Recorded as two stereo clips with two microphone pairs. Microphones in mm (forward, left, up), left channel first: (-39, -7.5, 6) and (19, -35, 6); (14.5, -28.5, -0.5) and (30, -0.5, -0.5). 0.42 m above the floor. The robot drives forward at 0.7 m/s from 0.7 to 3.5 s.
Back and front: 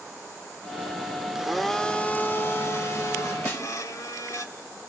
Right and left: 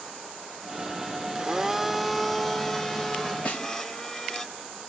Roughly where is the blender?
Ahead left.